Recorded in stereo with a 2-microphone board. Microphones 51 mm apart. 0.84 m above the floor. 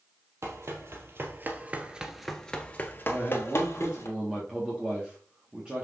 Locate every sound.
0.4 s running footsteps: 60° right (ahead or behind), 1.8 m; by 4.1 s 60° left (ahead or behind), 1.9 m
3.1 s a man speaking: 15° right (ahead or behind), 2.0 m